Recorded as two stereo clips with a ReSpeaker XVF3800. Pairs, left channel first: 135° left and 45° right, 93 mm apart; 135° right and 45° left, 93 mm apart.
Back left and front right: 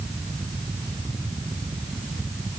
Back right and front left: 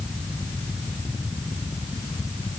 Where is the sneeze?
No sneeze in this recording.